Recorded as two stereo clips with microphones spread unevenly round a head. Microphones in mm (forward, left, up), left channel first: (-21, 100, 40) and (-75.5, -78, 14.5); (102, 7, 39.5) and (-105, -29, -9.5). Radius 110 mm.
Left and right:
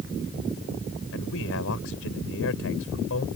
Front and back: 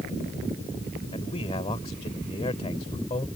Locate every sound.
1.1 s a man speaking: 75° left